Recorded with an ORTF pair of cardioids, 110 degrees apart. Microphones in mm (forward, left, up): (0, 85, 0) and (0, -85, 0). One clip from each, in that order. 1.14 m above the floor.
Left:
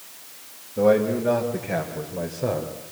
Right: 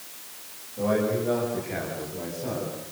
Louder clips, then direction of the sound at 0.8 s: Left 6 dB; 70° left.